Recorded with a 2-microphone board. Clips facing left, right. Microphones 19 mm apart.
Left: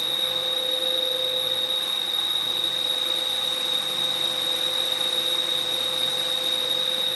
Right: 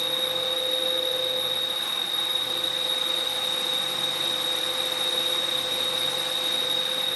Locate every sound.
0.0 s an insect: 30° left (ahead or behind), 1.0 m